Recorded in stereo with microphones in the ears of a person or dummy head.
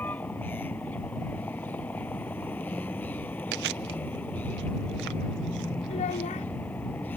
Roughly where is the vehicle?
Centre.